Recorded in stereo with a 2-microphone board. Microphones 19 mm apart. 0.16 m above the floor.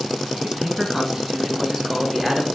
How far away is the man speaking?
About 1.8 m.